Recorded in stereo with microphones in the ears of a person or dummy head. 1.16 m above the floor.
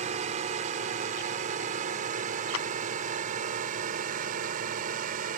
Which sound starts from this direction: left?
A clap, at 2.5 s.